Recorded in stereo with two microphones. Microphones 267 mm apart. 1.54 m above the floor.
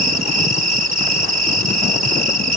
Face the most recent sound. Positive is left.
turn(degrees=-75)  # may be behind; listen again after turning